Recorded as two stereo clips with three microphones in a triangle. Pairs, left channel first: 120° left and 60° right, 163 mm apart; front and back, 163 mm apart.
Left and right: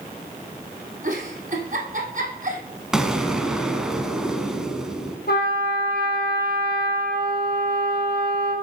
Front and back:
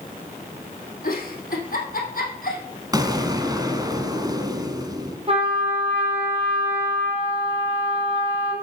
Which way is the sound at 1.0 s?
25° right.